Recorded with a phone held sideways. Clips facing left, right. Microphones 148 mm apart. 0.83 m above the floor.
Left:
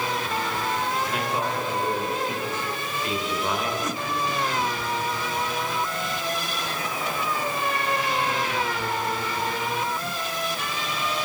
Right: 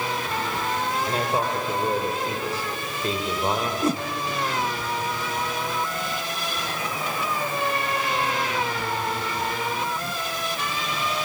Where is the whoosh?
30° right (ahead or behind), 0.7 m.